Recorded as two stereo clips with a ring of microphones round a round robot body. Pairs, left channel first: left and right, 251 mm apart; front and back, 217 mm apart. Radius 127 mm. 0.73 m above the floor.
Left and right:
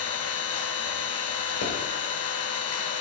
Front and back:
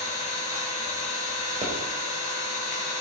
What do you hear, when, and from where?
0.0 s an engine running: 55° left, 3.5 m
1.6 s a pop: 120° left, 4 m